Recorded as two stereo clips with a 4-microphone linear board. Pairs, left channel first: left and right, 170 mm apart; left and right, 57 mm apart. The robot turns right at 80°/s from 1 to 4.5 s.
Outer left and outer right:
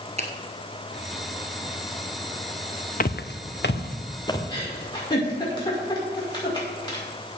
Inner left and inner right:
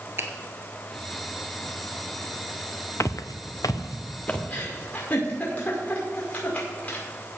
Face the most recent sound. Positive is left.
turn(degrees=25)  # may be behind; listen again after turning